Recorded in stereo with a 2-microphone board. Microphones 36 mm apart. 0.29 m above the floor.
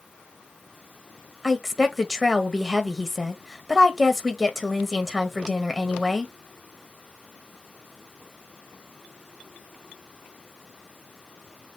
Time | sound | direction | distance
1.4 | a woman speaking | 5° right (ahead or behind) | 1.0 m